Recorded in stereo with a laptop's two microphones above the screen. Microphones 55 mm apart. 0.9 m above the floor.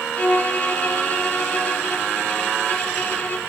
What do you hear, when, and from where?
0.2 s a violin: 30° left (ahead or behind), 0.7 m